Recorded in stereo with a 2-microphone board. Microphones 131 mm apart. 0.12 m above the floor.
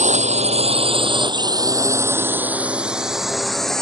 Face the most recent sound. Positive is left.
turn(degrees=5)  # may be behind; listen again after turning